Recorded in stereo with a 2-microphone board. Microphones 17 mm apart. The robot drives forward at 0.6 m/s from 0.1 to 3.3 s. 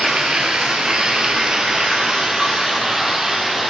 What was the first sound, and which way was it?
Running water, 75° right (ahead or behind).